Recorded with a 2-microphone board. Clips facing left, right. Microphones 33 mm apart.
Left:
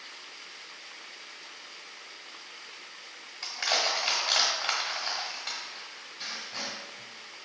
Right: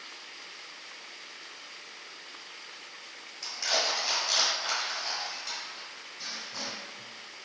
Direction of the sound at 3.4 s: 45° left (ahead or behind).